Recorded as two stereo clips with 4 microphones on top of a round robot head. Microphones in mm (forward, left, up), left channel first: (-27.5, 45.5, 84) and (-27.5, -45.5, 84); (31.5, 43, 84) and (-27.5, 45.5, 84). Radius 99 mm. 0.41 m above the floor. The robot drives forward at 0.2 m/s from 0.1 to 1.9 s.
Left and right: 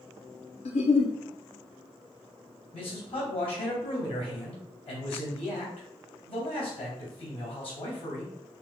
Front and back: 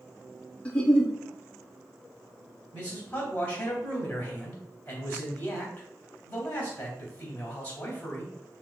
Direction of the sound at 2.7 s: 65° left.